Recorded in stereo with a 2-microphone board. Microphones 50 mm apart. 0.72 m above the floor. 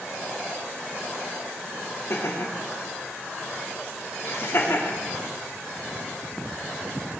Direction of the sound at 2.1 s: 60° left (ahead or behind).